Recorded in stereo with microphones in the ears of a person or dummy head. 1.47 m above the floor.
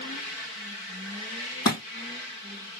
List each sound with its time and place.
1.6 s a thud: 25° left (ahead or behind), 3 m